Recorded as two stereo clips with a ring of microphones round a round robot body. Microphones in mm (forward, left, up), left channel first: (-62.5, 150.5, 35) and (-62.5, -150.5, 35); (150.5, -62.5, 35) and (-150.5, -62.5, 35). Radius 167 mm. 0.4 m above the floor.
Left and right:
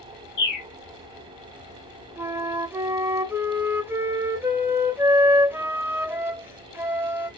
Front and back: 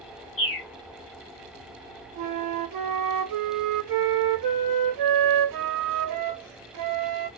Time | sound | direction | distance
0.4 | a bird | 50° left | 1.8 m
2.2 | a flute | 175° right | 0.7 m